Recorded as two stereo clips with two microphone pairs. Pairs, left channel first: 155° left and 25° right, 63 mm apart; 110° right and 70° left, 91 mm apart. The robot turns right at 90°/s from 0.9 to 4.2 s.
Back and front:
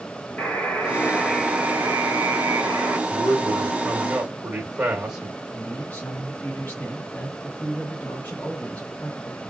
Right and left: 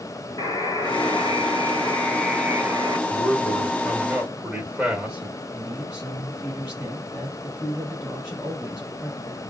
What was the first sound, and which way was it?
A buzzer, 155° right.